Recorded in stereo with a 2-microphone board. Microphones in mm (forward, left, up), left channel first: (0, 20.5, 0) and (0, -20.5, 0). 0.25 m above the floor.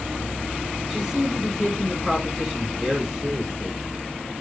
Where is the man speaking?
Centre (ahead or behind), 2.5 m.